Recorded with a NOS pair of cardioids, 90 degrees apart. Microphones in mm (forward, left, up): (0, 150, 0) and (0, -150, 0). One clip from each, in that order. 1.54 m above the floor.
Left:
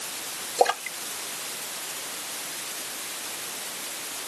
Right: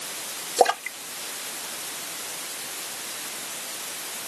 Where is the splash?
40° right.